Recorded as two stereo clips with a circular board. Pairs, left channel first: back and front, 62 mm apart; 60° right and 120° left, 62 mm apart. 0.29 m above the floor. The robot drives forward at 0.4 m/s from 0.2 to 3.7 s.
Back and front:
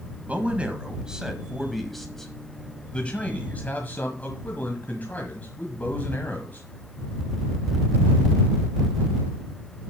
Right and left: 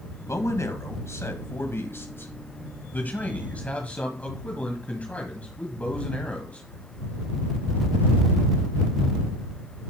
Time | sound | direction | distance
0.2 | a man speaking | 55° right | 1.6 m